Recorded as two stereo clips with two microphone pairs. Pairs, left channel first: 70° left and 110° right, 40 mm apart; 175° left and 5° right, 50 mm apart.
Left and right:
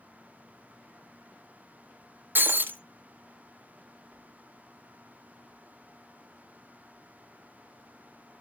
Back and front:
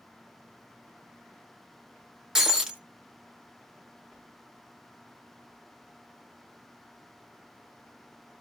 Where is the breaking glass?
80° right, 1.2 m.